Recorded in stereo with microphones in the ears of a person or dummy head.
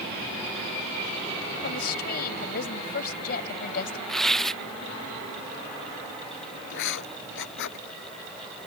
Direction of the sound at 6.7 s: 70° left (ahead or behind).